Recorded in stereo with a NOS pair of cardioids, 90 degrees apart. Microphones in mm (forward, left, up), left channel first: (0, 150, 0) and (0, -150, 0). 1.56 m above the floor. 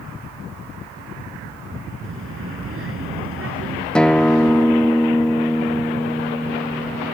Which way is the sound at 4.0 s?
5° left.